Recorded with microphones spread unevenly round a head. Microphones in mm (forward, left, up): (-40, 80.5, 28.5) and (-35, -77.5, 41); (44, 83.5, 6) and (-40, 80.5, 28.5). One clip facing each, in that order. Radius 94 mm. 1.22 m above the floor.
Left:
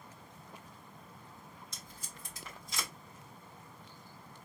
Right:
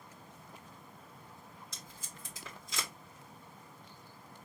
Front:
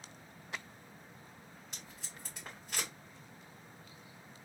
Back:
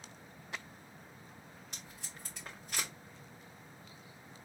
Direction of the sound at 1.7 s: 85° right.